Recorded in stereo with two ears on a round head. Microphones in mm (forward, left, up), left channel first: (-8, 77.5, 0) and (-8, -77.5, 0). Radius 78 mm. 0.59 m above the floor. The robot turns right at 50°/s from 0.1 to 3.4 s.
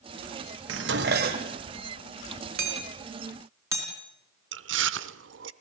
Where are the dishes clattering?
85° right, 1.9 m; by 1.6 s 35° right, 1.9 m.